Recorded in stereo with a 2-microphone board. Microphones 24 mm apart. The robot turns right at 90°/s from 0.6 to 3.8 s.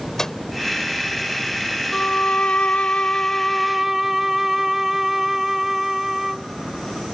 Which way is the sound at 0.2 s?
25° left (ahead or behind).